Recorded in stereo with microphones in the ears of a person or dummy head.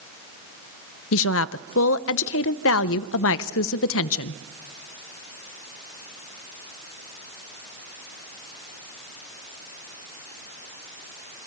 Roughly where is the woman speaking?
Left.